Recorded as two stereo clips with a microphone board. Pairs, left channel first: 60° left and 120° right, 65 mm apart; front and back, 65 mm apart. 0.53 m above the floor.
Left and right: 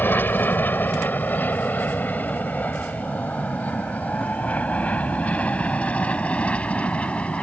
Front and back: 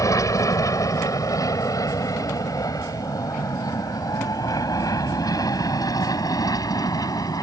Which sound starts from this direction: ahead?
An aircraft, at 0.0 s.